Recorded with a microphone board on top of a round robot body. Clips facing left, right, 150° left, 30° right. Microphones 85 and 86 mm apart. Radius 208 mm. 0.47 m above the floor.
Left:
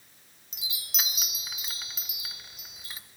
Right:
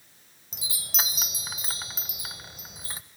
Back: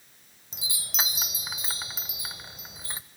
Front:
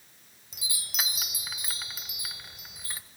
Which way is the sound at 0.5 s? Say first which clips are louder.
Right 4 dB, back 2 dB; 145° right.